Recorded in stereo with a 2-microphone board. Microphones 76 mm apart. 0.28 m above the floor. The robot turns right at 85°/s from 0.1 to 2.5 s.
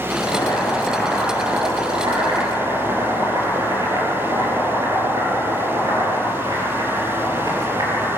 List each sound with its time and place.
0.1 s boiling: 100° left, 7 m; by 8.2 s 55° right, 7 m